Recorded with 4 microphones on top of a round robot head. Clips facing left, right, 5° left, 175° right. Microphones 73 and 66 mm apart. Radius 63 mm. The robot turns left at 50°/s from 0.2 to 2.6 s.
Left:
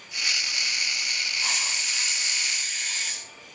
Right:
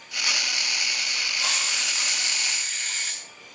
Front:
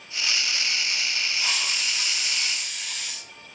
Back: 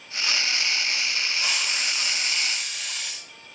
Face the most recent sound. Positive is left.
turn(degrees=-160)